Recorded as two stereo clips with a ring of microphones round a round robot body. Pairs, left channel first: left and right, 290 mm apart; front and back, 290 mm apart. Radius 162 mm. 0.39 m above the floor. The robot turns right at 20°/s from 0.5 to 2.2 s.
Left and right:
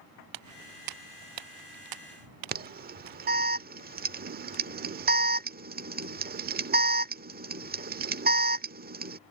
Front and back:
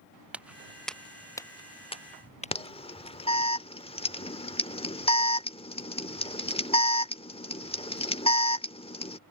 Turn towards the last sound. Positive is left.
turn(degrees=-60)